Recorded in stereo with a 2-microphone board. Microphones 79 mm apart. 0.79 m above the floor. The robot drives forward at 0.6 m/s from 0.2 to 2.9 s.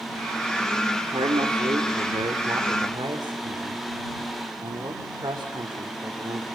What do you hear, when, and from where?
1.1 s a man speaking: 70° right (ahead or behind), 2.5 m; by 6.4 s 55° right (ahead or behind), 2.5 m